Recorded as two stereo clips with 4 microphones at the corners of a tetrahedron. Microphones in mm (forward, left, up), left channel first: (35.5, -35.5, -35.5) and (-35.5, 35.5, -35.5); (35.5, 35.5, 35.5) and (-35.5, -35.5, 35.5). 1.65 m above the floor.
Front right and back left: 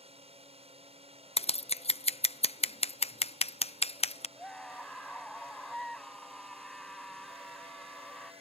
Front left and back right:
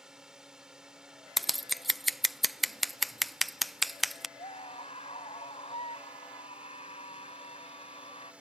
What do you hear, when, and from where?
0.0 s a drone: 140° left; by 8.4 s 145° left
1.4 s scissors: 45° right
4.4 s a scream: 40° left